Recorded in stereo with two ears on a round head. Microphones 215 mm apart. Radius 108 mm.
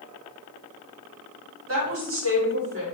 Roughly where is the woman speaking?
Right.